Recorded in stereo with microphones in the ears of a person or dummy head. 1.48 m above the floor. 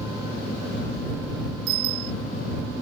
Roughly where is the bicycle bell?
Right.